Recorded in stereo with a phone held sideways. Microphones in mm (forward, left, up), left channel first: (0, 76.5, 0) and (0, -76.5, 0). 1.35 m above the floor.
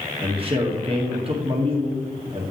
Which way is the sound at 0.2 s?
35° right (ahead or behind).